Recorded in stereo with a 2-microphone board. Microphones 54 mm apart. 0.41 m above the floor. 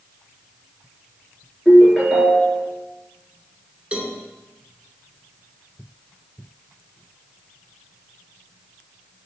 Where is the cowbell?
25° right (ahead or behind), 1.1 m.